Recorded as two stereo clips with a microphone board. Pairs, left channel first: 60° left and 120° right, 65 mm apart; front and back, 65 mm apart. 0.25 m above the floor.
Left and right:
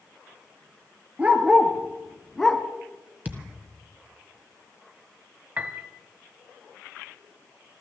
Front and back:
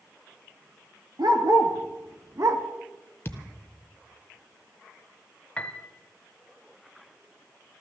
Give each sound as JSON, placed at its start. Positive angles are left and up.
{"t": 1.2, "sound": "a dog barking", "azimuth_deg": 175, "distance_m": 2.0}
{"t": 3.2, "sound": "a thud", "azimuth_deg": -55, "distance_m": 1.3}
{"t": 5.6, "sound": "a piano", "azimuth_deg": -65, "distance_m": 0.9}